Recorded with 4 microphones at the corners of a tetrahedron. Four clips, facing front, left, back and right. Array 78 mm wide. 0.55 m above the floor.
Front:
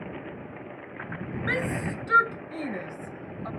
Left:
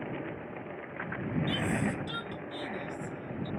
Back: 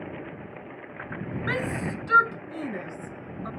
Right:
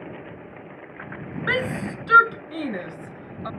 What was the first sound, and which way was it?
A shout, 90° right.